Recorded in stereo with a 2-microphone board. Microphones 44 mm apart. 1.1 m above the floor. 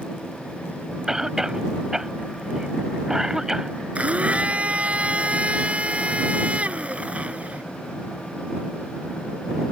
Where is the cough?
10° right (ahead or behind).